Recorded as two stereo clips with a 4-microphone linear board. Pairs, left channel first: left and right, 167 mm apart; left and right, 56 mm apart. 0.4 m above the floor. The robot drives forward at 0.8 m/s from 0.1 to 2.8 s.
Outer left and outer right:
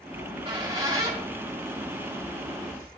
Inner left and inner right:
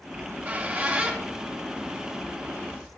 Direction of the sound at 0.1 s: 30° right (ahead or behind).